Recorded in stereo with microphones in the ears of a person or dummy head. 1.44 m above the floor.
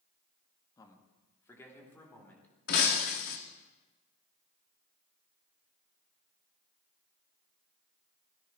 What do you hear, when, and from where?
0.8 s a man speaking: 25° left (ahead or behind), 2.0 m; by 2.5 s 10° left (ahead or behind), 4.5 m
2.7 s breaking glass: 50° left (ahead or behind), 1.6 m